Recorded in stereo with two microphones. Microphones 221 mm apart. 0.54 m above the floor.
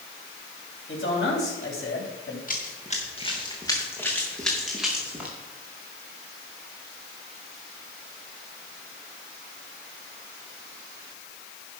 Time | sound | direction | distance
0.9 | a man speaking | 70° left (ahead or behind) | 3.5 m
2.5 | running footsteps | 40° left (ahead or behind) | 4 m